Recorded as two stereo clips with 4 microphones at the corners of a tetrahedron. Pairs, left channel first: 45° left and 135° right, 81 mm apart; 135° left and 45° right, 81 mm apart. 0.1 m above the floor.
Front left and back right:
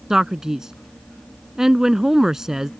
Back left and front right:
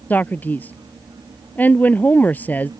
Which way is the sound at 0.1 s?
150° left.